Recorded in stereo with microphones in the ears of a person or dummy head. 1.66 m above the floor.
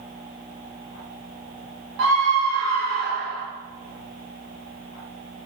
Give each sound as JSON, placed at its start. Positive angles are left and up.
{"t": 2.0, "sound": "a scream", "side_deg": -60, "distance_m": 1.3}